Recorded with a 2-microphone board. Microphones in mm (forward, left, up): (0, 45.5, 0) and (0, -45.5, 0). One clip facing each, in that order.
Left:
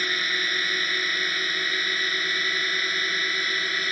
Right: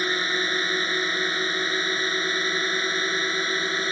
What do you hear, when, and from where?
0.0 s a drone: 25° right (ahead or behind)